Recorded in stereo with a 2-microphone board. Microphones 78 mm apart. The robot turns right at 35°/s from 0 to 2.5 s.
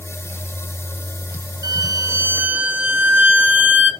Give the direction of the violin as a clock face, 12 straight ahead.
2 o'clock.